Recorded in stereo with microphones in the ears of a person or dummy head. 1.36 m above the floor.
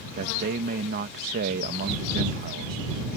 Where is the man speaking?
40° right (ahead or behind).